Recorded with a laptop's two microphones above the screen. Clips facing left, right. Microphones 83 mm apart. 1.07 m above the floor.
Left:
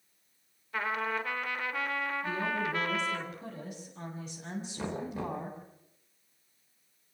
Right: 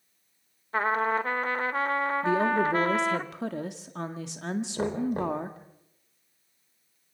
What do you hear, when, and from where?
0.7 s a trumpet: 35° right (ahead or behind), 0.9 m
2.2 s a woman speaking: 80° right, 1.7 m
4.8 s knocking: 50° right (ahead or behind), 3 m